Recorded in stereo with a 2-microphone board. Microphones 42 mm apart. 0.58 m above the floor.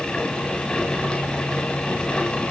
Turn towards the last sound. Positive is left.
No sound to turn to.